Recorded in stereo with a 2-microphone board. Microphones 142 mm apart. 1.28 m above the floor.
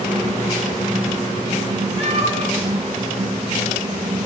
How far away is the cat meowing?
About 5 m.